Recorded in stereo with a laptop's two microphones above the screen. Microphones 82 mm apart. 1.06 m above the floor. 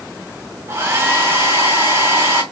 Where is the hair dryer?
35° right (ahead or behind), 3 m.